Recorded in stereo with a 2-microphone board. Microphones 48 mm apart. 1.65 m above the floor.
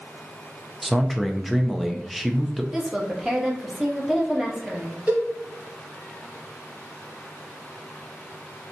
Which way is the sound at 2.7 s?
10° right (ahead or behind).